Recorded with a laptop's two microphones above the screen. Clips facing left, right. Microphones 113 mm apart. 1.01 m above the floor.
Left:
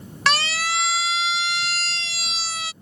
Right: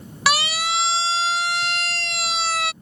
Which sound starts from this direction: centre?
A siren, at 0.3 s.